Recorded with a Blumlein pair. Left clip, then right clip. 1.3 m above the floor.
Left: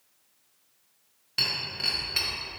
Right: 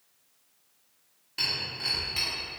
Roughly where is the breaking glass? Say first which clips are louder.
Left 2 dB; left.